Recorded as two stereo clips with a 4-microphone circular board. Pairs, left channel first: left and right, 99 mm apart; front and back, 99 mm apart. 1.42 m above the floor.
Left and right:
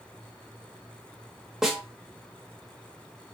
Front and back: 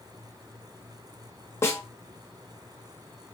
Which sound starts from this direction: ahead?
A snare drum, at 1.6 s.